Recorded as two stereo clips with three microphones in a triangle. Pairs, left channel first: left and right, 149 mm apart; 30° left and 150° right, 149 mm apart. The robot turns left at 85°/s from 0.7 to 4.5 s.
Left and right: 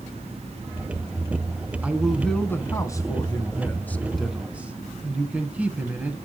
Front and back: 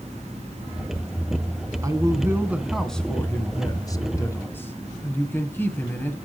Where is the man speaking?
155° right, 1.3 m; by 6.2 s 25° right, 1.3 m.